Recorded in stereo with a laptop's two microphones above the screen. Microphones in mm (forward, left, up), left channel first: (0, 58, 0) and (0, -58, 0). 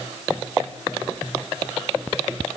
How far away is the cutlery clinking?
No cutlery clinking in this recording.